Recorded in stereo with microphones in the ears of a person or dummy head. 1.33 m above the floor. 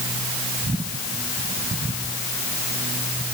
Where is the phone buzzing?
No phone buzzing in this recording.